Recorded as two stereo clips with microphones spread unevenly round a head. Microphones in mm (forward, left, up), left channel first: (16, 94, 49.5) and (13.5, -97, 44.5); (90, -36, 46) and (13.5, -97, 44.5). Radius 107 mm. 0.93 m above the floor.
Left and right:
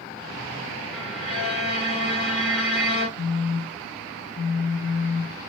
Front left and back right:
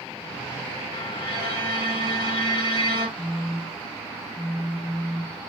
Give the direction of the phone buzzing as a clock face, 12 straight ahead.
9 o'clock.